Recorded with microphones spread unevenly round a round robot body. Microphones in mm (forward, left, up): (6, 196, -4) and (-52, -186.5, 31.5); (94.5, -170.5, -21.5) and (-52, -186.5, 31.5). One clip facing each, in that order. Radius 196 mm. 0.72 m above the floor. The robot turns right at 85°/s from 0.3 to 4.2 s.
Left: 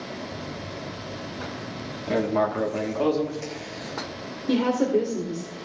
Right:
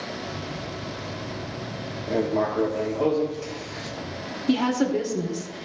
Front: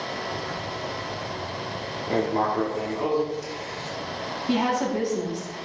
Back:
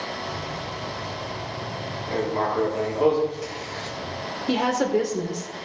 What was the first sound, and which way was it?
Writing, 35° left.